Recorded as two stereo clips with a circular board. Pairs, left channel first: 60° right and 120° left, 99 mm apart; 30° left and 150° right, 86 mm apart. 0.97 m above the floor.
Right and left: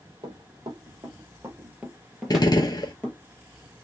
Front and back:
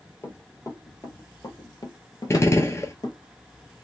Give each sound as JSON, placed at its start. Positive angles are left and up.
{"t": 0.2, "sound": "running footsteps", "azimuth_deg": 85, "distance_m": 1.8}
{"t": 2.3, "sound": "a gunshot", "azimuth_deg": -20, "distance_m": 0.9}